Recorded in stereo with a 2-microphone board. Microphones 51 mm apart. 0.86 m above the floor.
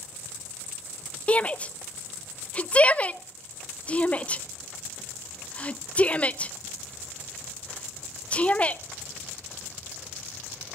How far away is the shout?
About 0.7 m.